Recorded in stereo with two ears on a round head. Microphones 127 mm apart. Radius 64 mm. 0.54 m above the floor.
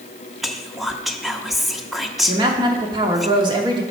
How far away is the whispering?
About 0.6 m.